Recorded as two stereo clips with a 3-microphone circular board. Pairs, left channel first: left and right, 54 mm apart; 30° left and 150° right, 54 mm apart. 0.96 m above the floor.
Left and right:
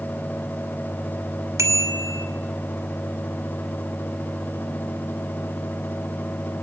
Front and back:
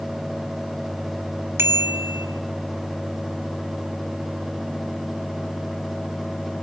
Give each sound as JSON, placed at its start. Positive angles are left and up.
{"t": 1.6, "sound": "a bicycle bell", "azimuth_deg": -110, "distance_m": 2.5}